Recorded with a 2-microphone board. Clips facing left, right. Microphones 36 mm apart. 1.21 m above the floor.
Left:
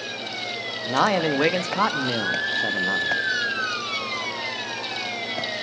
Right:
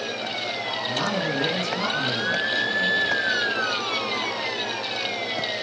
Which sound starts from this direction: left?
A man speaking, at 0.8 s.